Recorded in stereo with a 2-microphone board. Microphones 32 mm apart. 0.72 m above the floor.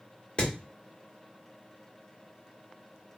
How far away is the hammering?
About 1.3 m.